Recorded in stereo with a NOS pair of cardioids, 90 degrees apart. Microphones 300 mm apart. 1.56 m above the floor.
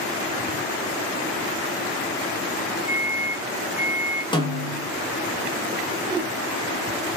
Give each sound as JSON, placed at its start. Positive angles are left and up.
{"t": 2.9, "sound": "a microwave", "azimuth_deg": -5, "distance_m": 1.4}
{"t": 4.3, "sound": "a snare drum", "azimuth_deg": 15, "distance_m": 1.3}
{"t": 6.0, "sound": "a whoosh", "azimuth_deg": -15, "distance_m": 0.6}